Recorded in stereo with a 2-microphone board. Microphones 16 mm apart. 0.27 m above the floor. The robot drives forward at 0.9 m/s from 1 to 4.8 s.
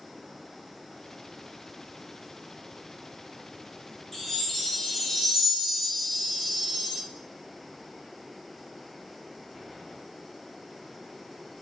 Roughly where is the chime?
Left.